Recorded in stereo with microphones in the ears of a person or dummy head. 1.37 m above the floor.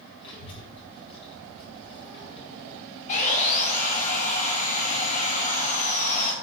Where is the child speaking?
30° left (ahead or behind), 4 m.